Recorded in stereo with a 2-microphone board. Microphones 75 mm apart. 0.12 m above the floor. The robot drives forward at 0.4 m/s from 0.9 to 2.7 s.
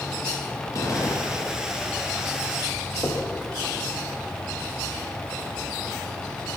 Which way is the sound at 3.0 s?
45° left (ahead or behind).